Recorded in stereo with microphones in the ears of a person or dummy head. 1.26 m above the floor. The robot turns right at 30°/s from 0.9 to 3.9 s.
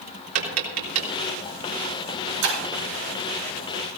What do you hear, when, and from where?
0.3 s tapping: 85° right, 4 m; by 1.1 s 80° right, 4 m
2.4 s breaking glass: 80° right, 8 m; by 2.6 s 75° right (ahead or behind), 8 m